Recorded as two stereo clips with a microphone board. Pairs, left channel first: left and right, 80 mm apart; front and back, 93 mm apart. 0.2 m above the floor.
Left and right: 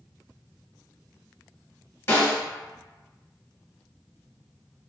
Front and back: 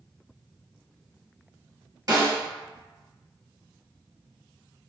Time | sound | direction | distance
2.1 | a snare drum | 145° left | 1.4 m